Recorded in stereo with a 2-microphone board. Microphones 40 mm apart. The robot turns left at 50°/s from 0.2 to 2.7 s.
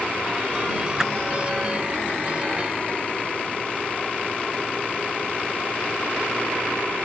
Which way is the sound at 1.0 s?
15° right (ahead or behind).